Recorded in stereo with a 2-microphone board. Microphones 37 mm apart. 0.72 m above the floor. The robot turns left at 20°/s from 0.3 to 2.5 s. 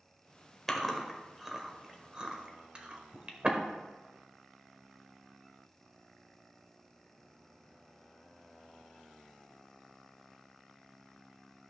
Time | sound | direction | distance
0.7 | chewing | 10° left (ahead or behind) | 1.1 m